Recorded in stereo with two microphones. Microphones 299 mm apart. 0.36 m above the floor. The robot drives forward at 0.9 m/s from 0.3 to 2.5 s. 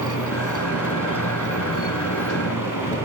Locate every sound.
0.0 s a motorcycle: 85° left; by 3.0 s 90° left